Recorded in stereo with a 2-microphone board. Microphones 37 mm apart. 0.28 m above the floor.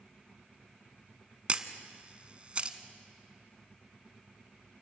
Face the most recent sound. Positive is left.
turn(degrees=-35)  # may be behind; listen again after turning